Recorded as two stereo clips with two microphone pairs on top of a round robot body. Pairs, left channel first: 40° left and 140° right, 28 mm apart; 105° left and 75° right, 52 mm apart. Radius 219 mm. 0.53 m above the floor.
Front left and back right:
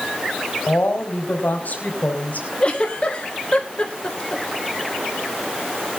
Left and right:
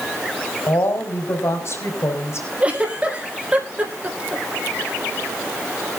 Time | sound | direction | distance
0.7 | a woman speaking | 70° left | 4.5 m
2.6 | a giggle | 10° right | 3.5 m